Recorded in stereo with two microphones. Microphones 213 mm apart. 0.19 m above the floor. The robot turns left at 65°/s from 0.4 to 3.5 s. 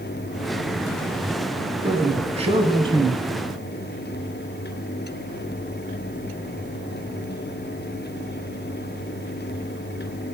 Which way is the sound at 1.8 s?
25° right (ahead or behind).